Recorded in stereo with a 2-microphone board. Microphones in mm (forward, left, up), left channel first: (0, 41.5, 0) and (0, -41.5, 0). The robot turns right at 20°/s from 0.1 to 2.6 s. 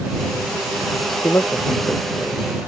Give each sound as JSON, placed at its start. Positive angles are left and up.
{"t": 1.2, "sound": "a man speaking", "side_deg": 35}